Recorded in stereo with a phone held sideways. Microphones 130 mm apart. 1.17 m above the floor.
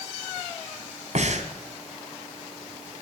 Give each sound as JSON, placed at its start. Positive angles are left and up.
{"t": 1.1, "sound": "breathing", "side_deg": -65, "distance_m": 2.0}